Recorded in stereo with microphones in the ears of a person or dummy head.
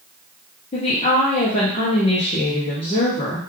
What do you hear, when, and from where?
0.7 s a woman speaking: 30° left (ahead or behind), 0.7 m